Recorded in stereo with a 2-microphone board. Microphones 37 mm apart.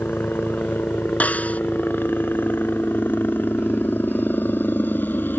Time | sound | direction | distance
0.0 | a helicopter | 65° left (ahead or behind) | ?
1.2 | a snare drum | 45° left (ahead or behind) | ?